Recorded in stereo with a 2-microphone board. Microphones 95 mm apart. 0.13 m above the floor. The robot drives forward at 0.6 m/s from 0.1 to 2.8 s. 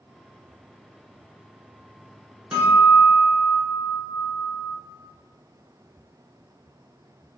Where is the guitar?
10° right (ahead or behind), 1.9 m.